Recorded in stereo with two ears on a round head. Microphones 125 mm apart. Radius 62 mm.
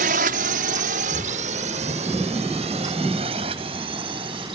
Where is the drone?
65° right (ahead or behind); by 4.6 s 40° right (ahead or behind).